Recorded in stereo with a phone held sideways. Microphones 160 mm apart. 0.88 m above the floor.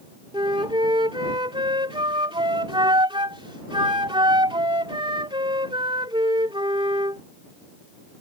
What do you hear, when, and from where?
0.3 s a flute: 30° right (ahead or behind)